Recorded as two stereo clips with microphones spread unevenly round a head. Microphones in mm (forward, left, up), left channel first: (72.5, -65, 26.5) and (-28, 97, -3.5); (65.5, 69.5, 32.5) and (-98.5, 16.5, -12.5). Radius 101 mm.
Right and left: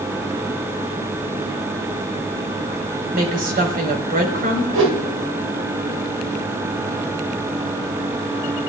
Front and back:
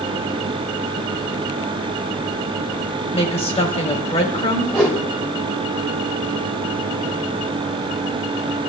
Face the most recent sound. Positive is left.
turn(degrees=105)